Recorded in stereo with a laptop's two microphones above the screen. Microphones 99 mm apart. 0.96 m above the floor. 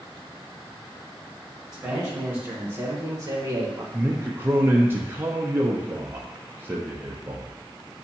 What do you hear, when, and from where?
1.7 s a man speaking: 10° right (ahead or behind), 1.5 m; by 3.8 s 45° right (ahead or behind), 0.9 m
3.9 s a man speaking: 20° right (ahead or behind), 0.6 m